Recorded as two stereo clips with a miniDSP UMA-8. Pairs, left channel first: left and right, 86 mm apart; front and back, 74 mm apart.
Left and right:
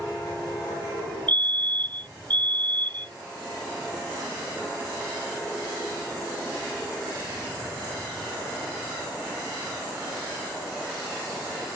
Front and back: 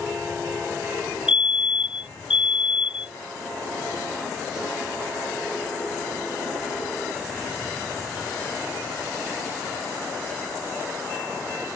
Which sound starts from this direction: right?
A fire alarm, at 1.3 s.